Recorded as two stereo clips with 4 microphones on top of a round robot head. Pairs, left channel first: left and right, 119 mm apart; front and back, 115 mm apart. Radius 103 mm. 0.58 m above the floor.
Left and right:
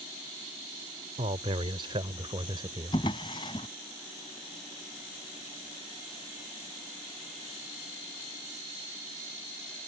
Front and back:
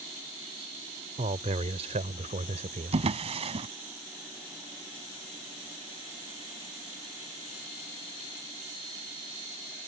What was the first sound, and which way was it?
A man speaking, 135° right.